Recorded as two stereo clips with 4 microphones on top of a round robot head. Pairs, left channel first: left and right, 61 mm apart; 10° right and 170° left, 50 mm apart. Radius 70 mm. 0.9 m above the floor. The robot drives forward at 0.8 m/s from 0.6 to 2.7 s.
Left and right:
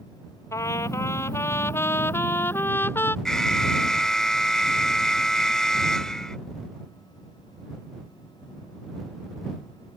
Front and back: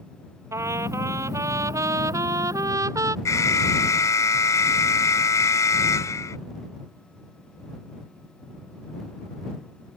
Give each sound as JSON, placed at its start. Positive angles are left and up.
{"t": 0.5, "sound": "a trumpet", "azimuth_deg": 135}
{"t": 3.2, "sound": "an alarm", "azimuth_deg": 5}